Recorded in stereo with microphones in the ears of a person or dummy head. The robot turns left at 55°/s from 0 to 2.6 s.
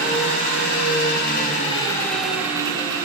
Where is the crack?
I don't hear a crack.